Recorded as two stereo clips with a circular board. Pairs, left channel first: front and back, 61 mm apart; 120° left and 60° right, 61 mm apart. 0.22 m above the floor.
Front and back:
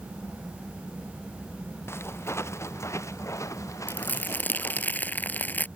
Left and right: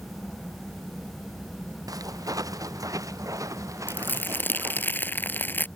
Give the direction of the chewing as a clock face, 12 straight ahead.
I don't hear chewing.